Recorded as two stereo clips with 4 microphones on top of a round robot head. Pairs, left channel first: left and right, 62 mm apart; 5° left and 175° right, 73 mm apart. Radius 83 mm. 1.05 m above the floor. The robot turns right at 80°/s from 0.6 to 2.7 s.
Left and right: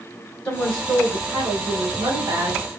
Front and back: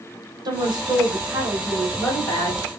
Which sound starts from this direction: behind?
A woman speaking, at 0.5 s.